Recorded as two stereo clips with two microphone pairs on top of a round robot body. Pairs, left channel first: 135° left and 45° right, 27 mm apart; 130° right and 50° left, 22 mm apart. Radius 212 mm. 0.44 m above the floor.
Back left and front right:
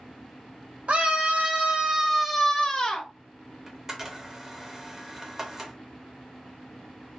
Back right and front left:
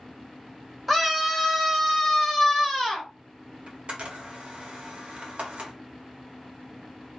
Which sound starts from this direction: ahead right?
A scream, at 0.9 s.